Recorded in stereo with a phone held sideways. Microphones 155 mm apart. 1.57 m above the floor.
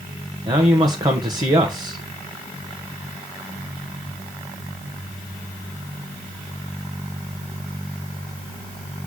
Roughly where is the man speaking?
Right.